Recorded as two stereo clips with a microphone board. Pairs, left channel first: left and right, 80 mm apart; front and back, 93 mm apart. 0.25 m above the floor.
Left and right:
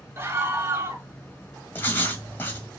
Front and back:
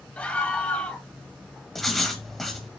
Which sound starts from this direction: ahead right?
A scream, at 0.2 s.